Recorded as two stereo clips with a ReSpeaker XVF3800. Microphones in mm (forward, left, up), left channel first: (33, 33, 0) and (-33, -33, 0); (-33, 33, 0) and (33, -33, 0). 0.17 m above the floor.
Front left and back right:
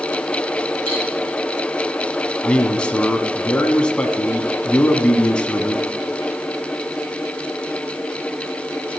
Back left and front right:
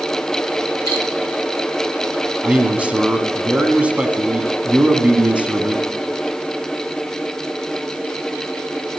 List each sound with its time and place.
0.9 s cutlery clinking: 160° right, 6 m
2.4 s a man speaking: 5° right, 1.1 m